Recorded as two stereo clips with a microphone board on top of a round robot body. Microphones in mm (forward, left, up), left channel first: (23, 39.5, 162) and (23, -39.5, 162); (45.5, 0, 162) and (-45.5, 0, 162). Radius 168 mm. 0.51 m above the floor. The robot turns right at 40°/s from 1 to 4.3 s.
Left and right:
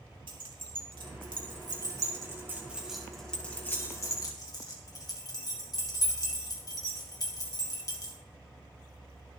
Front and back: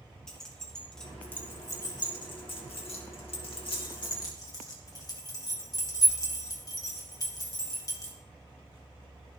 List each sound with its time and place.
0.3 s keys jangling: 85° right, 2.5 m; by 8.1 s 50° left, 2.5 m